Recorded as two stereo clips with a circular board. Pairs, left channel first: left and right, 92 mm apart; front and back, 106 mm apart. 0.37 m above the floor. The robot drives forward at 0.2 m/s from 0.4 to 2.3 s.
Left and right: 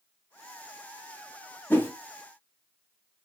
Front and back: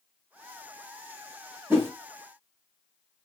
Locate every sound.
1.7 s a whoosh: 135° left, 0.8 m